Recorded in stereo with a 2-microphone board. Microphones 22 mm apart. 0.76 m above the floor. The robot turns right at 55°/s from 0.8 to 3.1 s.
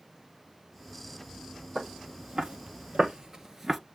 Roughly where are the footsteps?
Right.